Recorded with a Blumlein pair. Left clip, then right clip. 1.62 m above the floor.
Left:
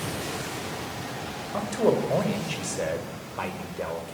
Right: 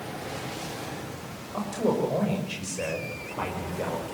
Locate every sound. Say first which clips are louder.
1.5 s a man speaking: left 3 dB; 15° left, 7 m; by 4.2 s straight ahead, 6 m